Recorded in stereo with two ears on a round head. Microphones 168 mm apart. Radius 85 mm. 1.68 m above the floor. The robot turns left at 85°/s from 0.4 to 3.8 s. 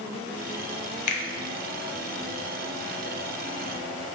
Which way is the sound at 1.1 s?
40° left (ahead or behind).